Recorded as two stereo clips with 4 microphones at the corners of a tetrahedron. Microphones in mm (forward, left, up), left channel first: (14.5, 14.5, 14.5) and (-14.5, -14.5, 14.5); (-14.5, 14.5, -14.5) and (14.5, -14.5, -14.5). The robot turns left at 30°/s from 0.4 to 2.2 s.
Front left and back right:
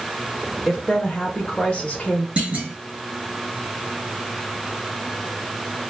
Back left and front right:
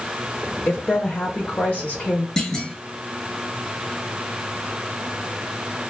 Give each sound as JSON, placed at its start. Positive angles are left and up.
{"t": 0.7, "sound": "a woman speaking", "azimuth_deg": 135, "distance_m": 0.8}
{"t": 2.4, "sound": "a clunk", "azimuth_deg": -160, "distance_m": 0.7}